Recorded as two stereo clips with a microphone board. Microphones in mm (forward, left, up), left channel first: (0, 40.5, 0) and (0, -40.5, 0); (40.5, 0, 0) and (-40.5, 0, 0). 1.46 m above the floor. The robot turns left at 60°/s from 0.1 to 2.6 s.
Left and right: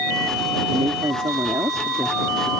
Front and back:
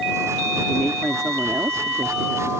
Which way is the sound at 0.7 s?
65° right.